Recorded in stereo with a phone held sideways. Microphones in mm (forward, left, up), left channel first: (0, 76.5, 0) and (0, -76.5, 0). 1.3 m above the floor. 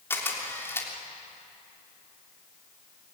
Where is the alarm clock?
No alarm clock in this recording.